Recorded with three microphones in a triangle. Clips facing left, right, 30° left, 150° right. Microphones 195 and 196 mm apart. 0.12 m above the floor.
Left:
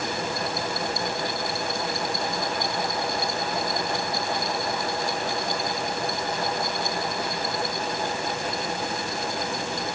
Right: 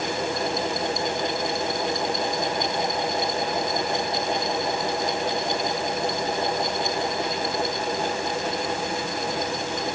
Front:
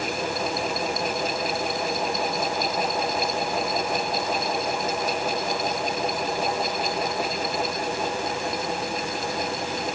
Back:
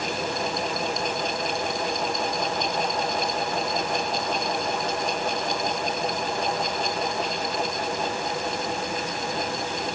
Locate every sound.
Only background noise.